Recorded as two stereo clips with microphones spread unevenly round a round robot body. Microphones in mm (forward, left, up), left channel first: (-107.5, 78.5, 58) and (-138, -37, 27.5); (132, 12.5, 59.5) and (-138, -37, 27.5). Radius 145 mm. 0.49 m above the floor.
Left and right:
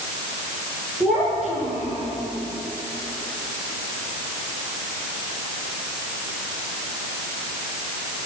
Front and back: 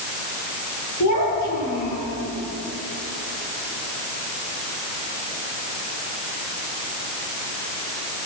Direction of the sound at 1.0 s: 20° right.